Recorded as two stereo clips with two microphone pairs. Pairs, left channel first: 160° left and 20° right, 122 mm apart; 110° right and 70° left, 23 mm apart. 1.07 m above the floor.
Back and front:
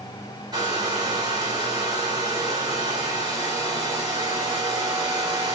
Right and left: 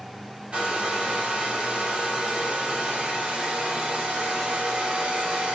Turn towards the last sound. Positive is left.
turn(degrees=35)